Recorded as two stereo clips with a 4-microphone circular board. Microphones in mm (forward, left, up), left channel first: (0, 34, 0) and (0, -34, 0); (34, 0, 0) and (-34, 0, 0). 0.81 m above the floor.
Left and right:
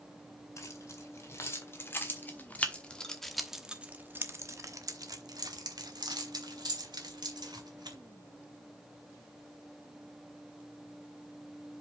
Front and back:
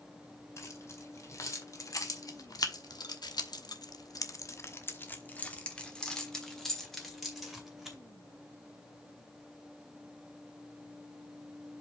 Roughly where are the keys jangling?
Ahead left.